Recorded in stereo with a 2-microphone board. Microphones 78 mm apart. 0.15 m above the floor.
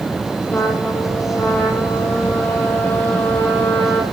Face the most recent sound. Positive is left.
turn(degrees=20)  # may be behind; listen again after turning